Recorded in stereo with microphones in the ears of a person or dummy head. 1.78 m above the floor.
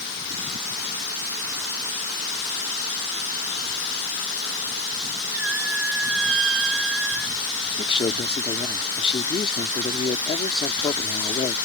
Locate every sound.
5.3 s a squeak: 80° right
7.8 s a man speaking: 30° left (ahead or behind)